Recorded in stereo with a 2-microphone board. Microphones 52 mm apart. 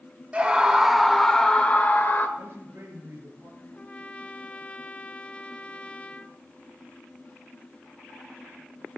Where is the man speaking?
55° right (ahead or behind), 6.5 m.